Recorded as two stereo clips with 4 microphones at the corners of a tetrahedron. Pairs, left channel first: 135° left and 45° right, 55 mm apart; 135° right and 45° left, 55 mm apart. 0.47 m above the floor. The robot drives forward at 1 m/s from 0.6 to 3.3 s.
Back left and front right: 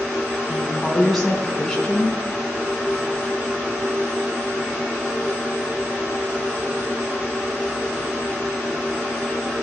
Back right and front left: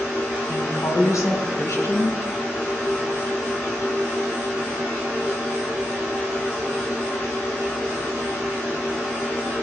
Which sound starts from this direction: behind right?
A woman speaking, at 0.5 s.